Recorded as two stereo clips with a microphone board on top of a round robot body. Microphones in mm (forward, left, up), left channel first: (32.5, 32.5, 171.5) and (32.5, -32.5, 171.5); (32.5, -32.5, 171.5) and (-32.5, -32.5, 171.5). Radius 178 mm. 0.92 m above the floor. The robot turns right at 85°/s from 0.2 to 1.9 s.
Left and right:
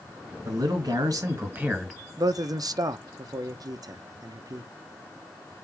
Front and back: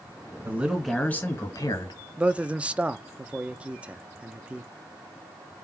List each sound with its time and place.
0.5 s a man speaking: 125° right, 1.9 m; by 2.0 s straight ahead, 1.9 m
2.2 s a man speaking: 110° right, 0.6 m